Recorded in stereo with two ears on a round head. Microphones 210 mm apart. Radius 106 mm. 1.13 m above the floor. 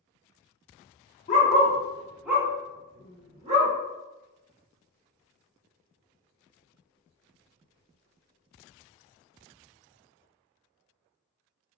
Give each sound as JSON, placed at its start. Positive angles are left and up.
{"t": 1.3, "sound": "a dog barking", "side_deg": 35, "distance_m": 0.8}